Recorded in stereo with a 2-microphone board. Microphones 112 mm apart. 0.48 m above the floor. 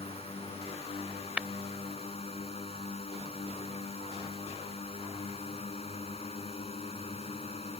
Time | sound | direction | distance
0.0 | a drone | 60° left (ahead or behind) | ?
1.4 | tapping | 10° right (ahead or behind) | ?